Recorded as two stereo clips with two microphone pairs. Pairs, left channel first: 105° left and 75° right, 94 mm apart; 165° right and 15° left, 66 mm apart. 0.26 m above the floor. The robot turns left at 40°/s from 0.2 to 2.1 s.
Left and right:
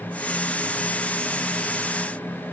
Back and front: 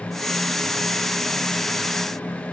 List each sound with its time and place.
Only background noise.